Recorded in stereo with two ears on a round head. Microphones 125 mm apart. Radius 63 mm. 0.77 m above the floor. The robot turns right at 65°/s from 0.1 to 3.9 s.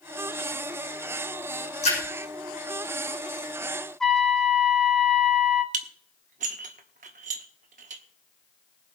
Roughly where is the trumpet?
Centre.